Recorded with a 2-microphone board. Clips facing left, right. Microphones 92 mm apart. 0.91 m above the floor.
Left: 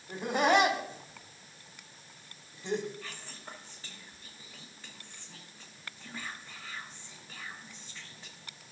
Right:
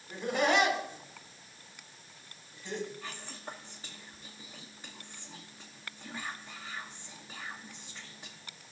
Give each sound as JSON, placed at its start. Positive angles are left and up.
{"t": 0.1, "sound": "laughter", "side_deg": 40, "distance_m": 3.0}
{"t": 3.0, "sound": "whispering", "side_deg": -20, "distance_m": 1.0}